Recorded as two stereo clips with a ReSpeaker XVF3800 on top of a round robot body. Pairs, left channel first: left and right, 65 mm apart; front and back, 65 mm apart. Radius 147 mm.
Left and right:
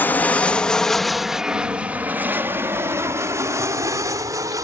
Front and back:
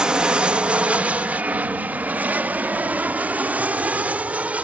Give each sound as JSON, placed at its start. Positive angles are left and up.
{"t": 0.0, "sound": "an aircraft", "azimuth_deg": 115}